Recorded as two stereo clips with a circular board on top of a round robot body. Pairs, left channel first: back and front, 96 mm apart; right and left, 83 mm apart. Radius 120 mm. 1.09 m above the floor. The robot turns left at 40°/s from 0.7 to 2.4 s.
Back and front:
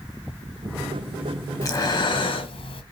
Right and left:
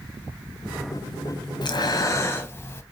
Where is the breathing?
125° right, 0.8 m; by 2.8 s 155° right, 0.8 m.